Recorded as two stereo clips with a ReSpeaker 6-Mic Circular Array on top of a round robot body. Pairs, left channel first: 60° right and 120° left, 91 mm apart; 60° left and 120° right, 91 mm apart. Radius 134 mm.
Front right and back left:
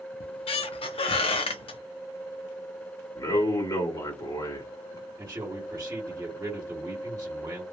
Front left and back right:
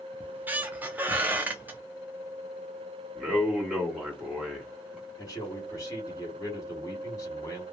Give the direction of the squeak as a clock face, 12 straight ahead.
2 o'clock.